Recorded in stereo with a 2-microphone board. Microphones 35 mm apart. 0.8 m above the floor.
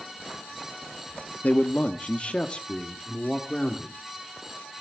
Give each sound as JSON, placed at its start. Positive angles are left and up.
{"t": 1.4, "sound": "a man speaking", "side_deg": 50, "distance_m": 1.1}